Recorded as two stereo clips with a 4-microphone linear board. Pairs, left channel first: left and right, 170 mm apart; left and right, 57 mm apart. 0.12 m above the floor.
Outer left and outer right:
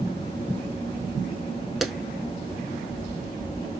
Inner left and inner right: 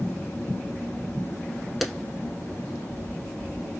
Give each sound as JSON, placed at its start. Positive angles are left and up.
{"t": 1.8, "sound": "a clap", "side_deg": 0, "distance_m": 0.9}